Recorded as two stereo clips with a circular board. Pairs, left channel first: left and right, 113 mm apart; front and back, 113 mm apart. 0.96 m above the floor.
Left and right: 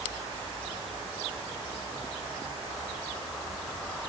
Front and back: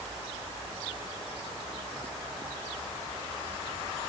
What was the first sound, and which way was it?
Only background noise.